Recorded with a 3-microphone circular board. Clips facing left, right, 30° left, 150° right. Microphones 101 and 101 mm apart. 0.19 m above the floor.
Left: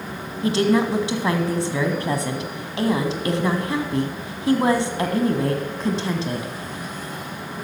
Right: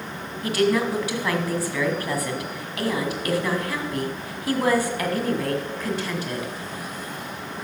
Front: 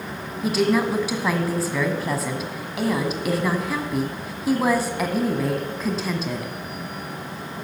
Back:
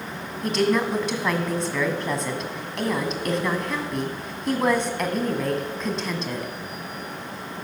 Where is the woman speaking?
110° left, 1.3 m.